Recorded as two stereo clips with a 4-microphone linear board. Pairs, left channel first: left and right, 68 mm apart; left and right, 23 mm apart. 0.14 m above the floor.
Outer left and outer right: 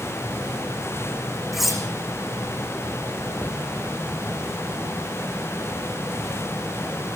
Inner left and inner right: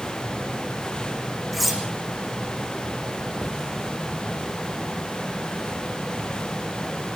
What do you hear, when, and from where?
1.5 s cutlery clinking: centre (ahead or behind), 4.5 m
3.4 s a cupboard door: 20° left (ahead or behind), 5.5 m